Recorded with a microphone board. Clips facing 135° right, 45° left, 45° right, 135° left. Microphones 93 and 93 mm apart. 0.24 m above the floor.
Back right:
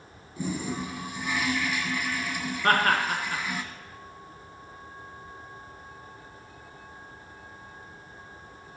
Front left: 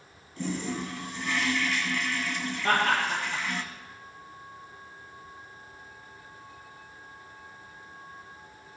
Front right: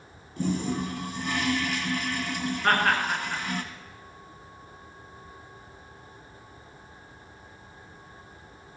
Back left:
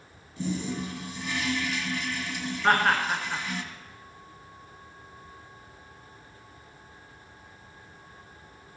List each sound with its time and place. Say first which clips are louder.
0.4 s a toilet flushing: back right 1 dB, front right 3 dB; 60° right, 0.8 m
2.6 s laughter: back right 2 dB, back left 1 dB; 140° right, 2.5 m